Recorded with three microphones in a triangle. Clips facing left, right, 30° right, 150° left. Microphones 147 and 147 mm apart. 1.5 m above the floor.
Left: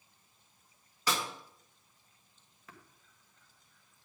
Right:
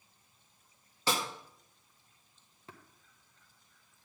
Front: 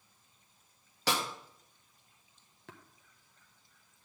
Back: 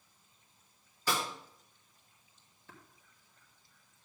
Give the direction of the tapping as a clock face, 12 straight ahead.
1 o'clock.